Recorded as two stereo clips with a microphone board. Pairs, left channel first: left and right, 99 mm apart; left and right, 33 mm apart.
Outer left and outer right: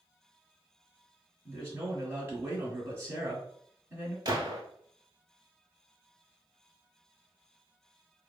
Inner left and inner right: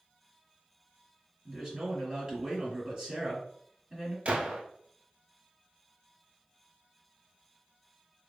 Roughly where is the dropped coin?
No dropped coin in this recording.